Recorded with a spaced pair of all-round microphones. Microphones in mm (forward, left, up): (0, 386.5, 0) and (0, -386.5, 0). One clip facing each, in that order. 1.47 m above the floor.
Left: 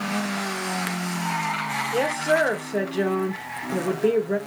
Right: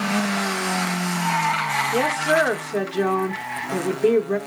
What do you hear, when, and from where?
1.9 s a woman speaking: 40° right (ahead or behind), 1.0 m